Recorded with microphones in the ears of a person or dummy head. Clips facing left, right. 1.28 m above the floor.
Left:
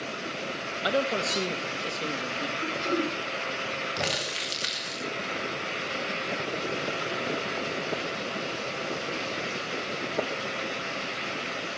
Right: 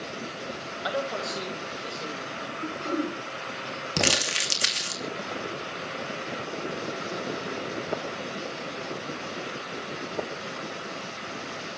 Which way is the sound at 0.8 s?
40° left (ahead or behind).